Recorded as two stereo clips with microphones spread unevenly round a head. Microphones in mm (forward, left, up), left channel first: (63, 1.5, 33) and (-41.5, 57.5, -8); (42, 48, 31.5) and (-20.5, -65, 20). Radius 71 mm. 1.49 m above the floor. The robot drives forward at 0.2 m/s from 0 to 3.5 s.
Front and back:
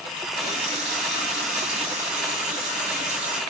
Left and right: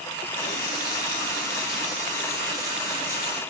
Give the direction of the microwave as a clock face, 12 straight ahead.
I don't hear a microwave.